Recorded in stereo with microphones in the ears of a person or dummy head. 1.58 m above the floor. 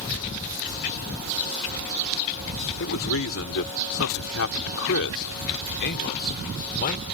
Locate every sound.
2.8 s a man speaking: 75° left (ahead or behind); by 7.0 s 45° left (ahead or behind)